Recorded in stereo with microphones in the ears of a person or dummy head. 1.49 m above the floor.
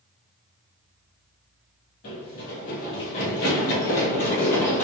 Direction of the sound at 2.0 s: 35° left (ahead or behind).